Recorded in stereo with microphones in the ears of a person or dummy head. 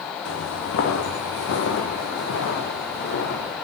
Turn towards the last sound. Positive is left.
turn(degrees=55)  # may be behind; listen again after turning